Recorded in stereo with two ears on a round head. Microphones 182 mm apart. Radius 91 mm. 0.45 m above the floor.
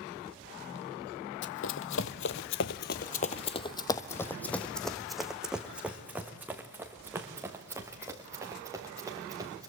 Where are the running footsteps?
60° left (ahead or behind), 1.1 m; by 9.7 s 15° right (ahead or behind), 4 m.